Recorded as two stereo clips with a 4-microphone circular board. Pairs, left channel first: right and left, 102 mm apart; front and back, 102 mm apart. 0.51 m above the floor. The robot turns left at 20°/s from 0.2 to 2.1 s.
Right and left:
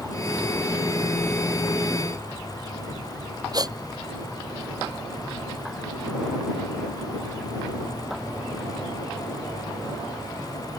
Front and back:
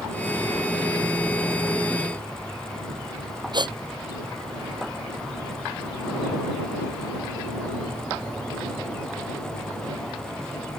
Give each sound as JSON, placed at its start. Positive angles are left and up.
{"t": 3.5, "sound": "a gasp", "azimuth_deg": 140}